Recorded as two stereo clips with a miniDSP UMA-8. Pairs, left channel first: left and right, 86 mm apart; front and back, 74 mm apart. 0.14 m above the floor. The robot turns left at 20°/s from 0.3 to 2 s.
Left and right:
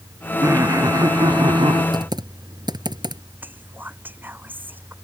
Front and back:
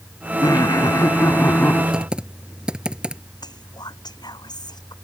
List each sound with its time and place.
0.4 s laughter: 35° right; by 1.8 s 65° right
1.9 s typing on a keyboard: 105° right
3.4 s whispering: 20° right